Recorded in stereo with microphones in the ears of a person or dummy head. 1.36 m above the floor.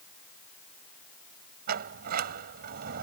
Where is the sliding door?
55° right (ahead or behind).